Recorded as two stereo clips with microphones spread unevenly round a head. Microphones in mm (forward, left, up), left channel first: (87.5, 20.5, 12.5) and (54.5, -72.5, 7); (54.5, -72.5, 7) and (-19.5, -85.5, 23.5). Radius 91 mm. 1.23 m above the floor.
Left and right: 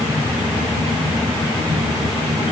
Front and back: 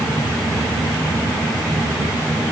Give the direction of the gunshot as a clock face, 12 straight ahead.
No gunshot in this recording.